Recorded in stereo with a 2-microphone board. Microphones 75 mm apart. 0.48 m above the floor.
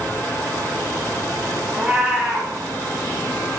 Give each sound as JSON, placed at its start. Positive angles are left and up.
{"t": 1.7, "sound": "a cat meowing", "side_deg": -5, "distance_m": 2.0}